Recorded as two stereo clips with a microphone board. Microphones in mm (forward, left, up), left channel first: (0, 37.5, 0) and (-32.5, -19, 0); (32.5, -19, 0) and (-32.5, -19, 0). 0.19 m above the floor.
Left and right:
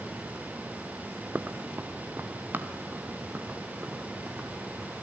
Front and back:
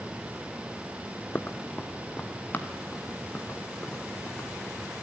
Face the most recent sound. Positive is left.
turn(degrees=-65)